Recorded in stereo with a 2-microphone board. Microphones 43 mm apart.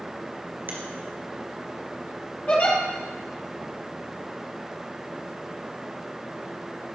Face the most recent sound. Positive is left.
turn(degrees=40)  # may be behind; listen again after turning